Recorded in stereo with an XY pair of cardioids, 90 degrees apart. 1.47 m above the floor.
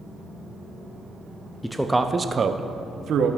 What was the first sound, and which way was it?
A man speaking, 10° left.